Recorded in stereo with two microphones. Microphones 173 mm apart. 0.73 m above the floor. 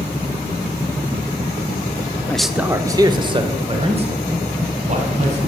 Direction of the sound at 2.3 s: 10° left (ahead or behind).